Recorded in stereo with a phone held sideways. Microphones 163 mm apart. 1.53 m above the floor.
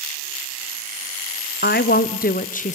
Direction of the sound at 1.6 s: 85° left.